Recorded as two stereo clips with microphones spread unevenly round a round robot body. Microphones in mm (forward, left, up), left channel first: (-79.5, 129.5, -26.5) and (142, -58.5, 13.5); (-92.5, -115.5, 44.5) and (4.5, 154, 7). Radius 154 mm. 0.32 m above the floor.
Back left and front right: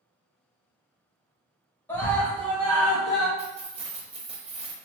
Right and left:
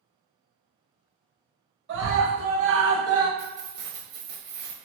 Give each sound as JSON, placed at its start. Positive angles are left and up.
{"t": 1.9, "sound": "a scream", "azimuth_deg": 65, "distance_m": 1.6}
{"t": 3.4, "sound": "keys jangling", "azimuth_deg": 30, "distance_m": 1.0}